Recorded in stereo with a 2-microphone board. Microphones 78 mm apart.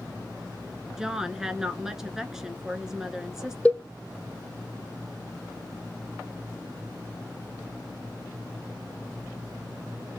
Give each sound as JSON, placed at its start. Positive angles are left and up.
{"t": 1.0, "sound": "a woman speaking", "side_deg": -5, "distance_m": 1.1}
{"t": 3.6, "sound": "a cowbell", "side_deg": 15, "distance_m": 0.9}